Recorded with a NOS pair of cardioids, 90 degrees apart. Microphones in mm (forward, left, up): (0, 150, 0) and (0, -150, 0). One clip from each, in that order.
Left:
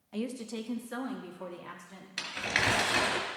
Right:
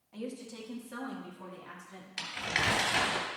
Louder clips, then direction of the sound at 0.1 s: Left 4 dB; 45° left.